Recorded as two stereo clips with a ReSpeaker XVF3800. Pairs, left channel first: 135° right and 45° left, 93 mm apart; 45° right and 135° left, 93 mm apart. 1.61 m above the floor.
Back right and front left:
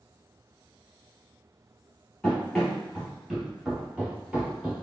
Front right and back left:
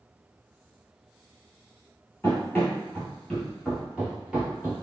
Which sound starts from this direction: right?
Running footsteps, at 2.2 s.